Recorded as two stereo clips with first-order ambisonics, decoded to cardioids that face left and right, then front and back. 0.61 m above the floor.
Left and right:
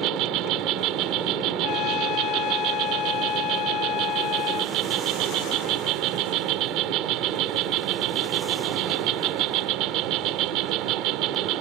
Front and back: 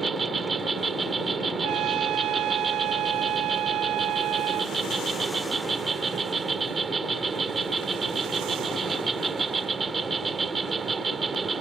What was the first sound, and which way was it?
An insect, 110° right.